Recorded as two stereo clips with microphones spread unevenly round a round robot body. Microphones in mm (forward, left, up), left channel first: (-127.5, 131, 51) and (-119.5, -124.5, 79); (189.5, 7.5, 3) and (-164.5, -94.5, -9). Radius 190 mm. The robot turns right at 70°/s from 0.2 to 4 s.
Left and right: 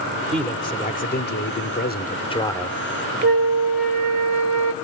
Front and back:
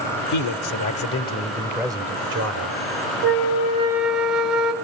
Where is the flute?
130° right, 1.0 m; by 4.7 s 75° right, 1.0 m.